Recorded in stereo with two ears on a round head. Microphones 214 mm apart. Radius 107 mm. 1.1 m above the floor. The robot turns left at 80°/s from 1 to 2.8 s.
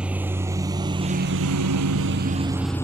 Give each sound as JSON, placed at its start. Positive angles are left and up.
{"t": 0.0, "sound": "a lawn mower", "side_deg": -5}